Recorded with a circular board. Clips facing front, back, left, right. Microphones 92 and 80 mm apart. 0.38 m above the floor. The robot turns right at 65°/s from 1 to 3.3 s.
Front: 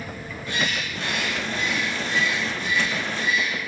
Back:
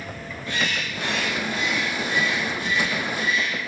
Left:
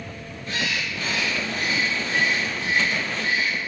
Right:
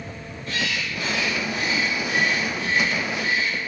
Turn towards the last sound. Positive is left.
turn(degrees=-160)